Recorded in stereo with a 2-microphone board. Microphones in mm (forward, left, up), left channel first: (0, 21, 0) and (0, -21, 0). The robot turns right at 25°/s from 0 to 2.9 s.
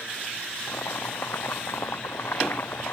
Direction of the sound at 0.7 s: 70° left.